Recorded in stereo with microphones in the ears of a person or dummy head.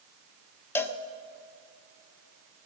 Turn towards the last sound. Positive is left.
turn(degrees=15)  # may be behind; listen again after turning